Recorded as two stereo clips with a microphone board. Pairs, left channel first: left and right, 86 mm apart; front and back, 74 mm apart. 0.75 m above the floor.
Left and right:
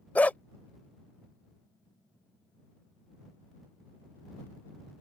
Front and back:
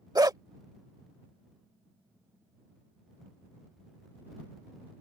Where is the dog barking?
160° left.